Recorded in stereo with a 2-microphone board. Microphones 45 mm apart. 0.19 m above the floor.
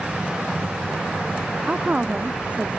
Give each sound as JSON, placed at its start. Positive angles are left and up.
{"t": 1.7, "sound": "a woman speaking", "side_deg": -25}